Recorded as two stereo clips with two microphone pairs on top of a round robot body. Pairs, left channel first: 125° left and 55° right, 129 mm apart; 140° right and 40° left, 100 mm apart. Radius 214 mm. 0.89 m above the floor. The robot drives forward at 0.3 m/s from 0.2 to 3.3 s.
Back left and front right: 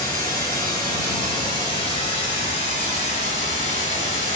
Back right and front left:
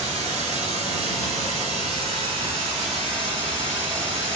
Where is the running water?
55° left, 2 m; by 4.4 s 85° left, 1.8 m.